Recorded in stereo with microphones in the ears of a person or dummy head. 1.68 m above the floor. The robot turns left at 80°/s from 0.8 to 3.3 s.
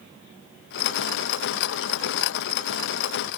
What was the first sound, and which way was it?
Only background noise.